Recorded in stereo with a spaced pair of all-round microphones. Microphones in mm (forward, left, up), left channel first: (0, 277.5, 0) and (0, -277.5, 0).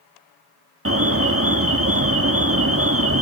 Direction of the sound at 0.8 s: 25° right (ahead or behind).